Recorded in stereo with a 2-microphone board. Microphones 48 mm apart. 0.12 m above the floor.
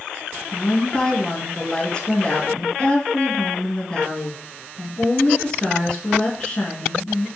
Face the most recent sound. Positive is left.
turn(degrees=20)  # may be behind; listen again after turning